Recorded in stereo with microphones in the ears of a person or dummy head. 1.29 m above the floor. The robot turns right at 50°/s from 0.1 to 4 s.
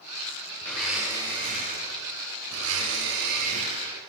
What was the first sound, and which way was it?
A blender, 165° left.